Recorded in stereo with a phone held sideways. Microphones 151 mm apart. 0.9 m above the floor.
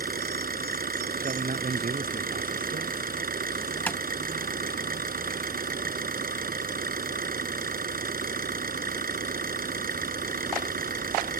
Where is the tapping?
10° left (ahead or behind).